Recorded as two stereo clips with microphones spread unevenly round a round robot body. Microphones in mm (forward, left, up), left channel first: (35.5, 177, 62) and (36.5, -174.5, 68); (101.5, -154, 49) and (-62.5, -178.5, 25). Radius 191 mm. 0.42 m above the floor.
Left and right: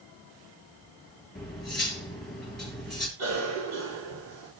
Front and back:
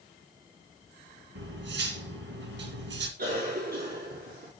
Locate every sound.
1.4 s cutlery clinking: straight behind, 2 m
3.2 s a cough: 145° right, 5.5 m